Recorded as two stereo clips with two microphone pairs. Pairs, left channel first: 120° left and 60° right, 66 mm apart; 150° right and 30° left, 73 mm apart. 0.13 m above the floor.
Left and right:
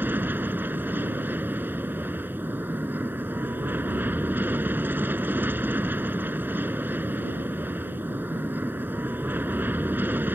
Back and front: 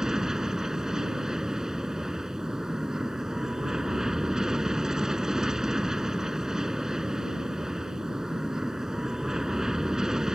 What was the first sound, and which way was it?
An aircraft, 45° right.